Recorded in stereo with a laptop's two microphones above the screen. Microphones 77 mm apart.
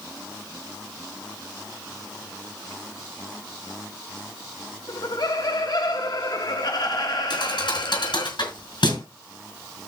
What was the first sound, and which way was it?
Laughter, 60° left (ahead or behind).